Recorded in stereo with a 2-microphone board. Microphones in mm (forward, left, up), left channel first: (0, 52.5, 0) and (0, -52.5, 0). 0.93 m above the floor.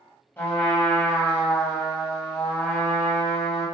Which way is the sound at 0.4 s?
20° left (ahead or behind).